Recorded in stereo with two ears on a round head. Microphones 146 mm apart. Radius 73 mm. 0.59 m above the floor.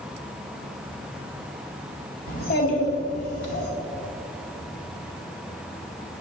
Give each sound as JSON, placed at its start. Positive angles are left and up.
{"t": 2.3, "sound": "a child speaking", "side_deg": 60, "distance_m": 2.5}